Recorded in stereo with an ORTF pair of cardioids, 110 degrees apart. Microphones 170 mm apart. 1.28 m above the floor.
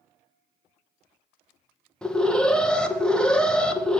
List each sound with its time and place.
2.0 s an alarm: 5° left, 0.9 m